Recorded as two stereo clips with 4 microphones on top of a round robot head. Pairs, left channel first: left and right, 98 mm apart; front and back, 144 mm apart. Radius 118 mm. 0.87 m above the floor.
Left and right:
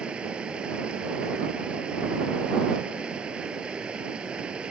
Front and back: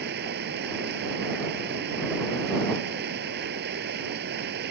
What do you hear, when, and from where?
0.0 s running water: 175° right